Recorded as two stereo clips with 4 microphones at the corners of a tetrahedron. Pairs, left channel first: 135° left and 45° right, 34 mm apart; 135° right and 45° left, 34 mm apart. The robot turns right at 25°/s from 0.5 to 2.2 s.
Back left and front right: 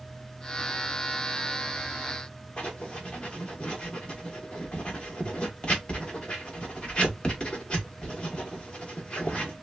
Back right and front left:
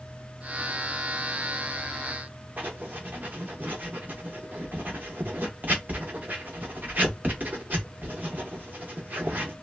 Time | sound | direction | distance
2.6 | writing | 75° left | 1.2 m